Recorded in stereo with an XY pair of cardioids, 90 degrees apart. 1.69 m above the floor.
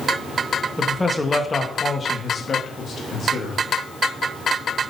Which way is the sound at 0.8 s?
5° left.